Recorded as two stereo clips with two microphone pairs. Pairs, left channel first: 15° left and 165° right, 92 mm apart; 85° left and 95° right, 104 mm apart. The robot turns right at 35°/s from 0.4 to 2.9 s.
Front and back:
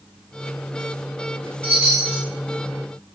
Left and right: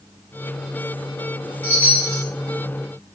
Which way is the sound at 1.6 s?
145° left.